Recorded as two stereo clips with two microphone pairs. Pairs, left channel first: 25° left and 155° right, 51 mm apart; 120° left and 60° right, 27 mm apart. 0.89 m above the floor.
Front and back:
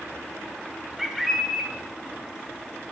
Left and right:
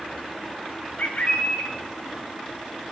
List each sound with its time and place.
1.0 s a bird: 120° left, 1.4 m